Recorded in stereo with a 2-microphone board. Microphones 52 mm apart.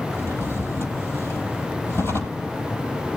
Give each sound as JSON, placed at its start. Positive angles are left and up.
{"t": 0.1, "sound": "a drawer", "side_deg": 60, "distance_m": 2.0}